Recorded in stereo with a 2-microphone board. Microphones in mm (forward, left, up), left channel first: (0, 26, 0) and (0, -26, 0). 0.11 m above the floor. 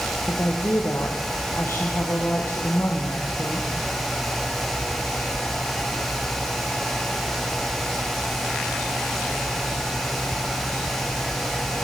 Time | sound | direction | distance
0.3 | a woman speaking | 60° left (ahead or behind) | 4 m